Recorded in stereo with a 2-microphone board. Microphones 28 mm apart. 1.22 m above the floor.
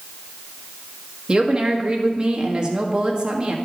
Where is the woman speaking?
30° right (ahead or behind), 1.6 m.